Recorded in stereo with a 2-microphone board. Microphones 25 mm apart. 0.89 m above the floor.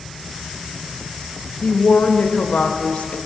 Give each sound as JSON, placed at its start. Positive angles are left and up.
{"t": 1.6, "sound": "a woman speaking", "side_deg": 65, "distance_m": 0.7}